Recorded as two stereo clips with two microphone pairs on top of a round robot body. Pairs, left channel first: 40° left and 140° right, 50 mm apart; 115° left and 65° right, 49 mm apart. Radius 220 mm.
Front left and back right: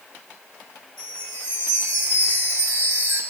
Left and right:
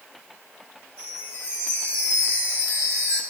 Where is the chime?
135° right, 4.5 m.